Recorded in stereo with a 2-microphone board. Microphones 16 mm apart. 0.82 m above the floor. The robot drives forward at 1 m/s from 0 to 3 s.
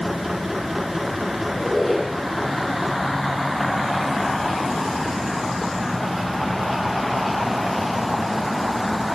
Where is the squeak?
5° right (ahead or behind), 6 m.